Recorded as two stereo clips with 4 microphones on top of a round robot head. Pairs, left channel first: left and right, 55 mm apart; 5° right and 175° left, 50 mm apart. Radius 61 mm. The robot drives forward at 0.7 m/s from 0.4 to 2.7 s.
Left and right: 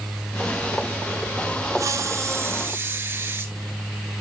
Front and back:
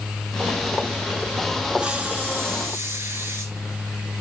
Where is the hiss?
110° right, 1.0 m; by 3.5 s 140° right, 1.4 m.